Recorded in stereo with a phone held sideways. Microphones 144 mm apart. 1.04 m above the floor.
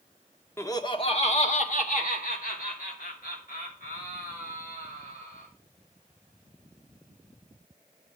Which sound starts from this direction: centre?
Laughter, at 0.6 s.